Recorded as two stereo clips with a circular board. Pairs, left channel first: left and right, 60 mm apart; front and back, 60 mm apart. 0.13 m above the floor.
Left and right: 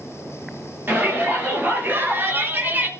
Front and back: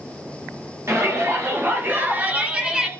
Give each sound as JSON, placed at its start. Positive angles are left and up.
{"t": 0.9, "sound": "a shout", "azimuth_deg": -145, "distance_m": 3.5}